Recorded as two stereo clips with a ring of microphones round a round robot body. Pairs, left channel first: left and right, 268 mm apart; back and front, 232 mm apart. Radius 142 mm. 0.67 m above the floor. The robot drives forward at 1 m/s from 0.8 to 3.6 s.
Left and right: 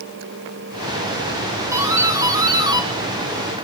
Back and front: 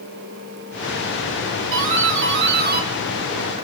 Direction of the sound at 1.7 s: 10° right.